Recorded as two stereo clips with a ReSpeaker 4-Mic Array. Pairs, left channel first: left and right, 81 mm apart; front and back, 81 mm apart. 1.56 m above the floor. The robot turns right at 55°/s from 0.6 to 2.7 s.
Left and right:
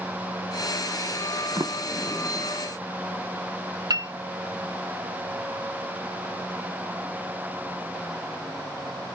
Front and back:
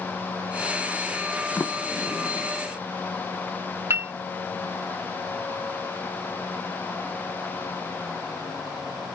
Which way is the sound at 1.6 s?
60° right.